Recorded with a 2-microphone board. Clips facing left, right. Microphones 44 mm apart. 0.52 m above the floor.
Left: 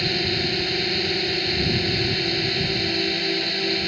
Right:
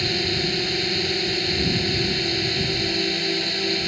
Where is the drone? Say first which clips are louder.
Even; 5° left (ahead or behind).